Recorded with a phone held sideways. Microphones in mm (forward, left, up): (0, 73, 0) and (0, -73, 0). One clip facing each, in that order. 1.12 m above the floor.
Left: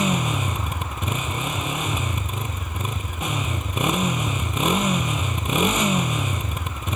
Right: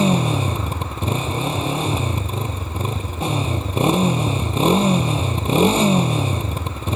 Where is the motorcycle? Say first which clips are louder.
Right 5 dB; 35° right (ahead or behind).